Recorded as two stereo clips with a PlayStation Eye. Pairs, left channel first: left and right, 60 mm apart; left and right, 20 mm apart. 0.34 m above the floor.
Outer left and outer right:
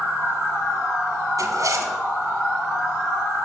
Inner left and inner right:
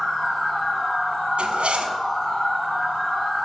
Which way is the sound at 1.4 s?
70° right (ahead or behind).